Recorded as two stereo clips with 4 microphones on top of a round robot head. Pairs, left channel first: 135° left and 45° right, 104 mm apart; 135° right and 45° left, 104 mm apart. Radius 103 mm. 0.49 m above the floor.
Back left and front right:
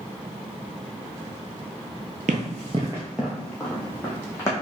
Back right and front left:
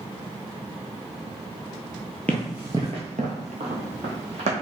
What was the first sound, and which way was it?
Running footsteps, 55° right.